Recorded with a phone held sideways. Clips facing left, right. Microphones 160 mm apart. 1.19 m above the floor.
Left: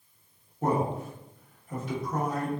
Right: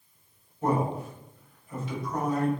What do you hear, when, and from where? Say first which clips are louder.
0.6 s a man speaking: even; 50° left (ahead or behind), 1.1 m